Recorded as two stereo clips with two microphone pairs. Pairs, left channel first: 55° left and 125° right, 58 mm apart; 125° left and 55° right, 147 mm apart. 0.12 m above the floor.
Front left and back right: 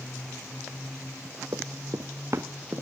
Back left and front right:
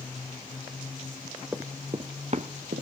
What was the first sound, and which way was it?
Running footsteps, 135° right.